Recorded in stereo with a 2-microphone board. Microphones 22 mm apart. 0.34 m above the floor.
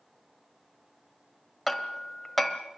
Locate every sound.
1.7 s hammering: 10° left (ahead or behind), 1.2 m